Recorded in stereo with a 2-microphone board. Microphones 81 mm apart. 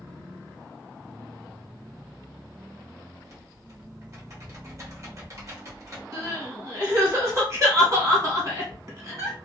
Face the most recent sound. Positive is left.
turn(degrees=-40)  # may be behind; listen again after turning